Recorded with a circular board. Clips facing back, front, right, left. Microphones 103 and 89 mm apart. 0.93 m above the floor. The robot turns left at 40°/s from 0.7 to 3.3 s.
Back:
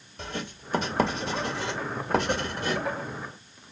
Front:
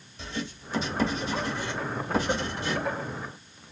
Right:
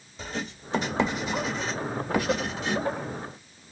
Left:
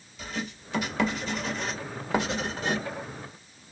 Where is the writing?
145° right, 1.7 m; by 2.8 s 130° left, 1.7 m.